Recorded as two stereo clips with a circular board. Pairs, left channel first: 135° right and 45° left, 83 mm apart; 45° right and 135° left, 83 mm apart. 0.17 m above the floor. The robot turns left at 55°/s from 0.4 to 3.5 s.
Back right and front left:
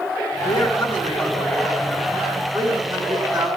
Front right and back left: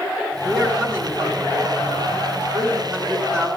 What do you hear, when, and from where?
0.5 s a man speaking: 165° right, 2 m; by 3.5 s 30° left, 2 m